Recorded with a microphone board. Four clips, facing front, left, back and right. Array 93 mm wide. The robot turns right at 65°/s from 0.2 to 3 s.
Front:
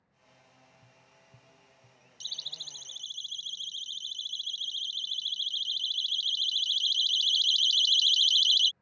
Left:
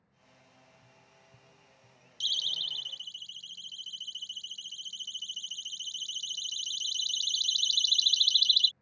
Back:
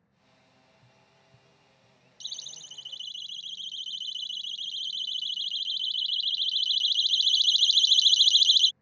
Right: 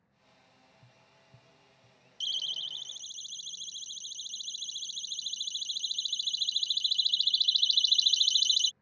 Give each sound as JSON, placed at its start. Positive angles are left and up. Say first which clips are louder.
{"t": 0.8, "sound": "tapping", "louder": "left 2 dB, front 1 dB", "azimuth_deg": -85}
{"t": 2.2, "sound": "a siren", "louder": "left 1 dB, front 2 dB", "azimuth_deg": 85}